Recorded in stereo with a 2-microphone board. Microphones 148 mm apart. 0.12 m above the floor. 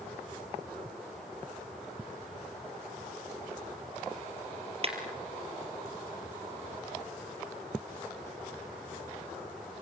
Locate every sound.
4.8 s a clap: 45° right (ahead or behind), 3 m